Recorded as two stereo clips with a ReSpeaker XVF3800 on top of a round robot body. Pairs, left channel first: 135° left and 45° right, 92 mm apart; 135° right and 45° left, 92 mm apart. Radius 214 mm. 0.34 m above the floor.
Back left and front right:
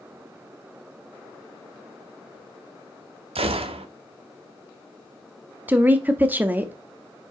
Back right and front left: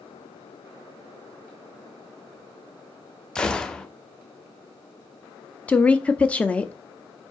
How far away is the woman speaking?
About 1.1 m.